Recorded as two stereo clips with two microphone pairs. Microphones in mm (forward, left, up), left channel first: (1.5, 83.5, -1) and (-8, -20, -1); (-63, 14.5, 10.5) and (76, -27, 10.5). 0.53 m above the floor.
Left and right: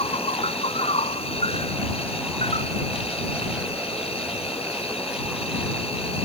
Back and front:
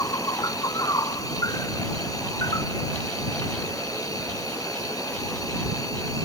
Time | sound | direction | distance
0.0 | an insect | 100° left | ?